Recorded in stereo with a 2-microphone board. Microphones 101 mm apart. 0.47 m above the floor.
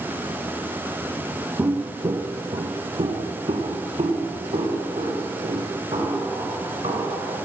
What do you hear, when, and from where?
1.6 s footsteps: 25° right (ahead or behind), 0.6 m; by 7.3 s 75° right (ahead or behind), 4 m